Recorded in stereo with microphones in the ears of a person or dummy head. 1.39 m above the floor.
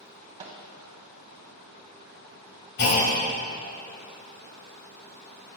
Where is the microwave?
35° right (ahead or behind), 0.8 m.